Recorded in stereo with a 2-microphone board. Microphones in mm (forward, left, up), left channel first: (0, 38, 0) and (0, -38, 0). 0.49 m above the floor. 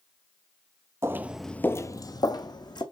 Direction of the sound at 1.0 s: 35° right (ahead or behind).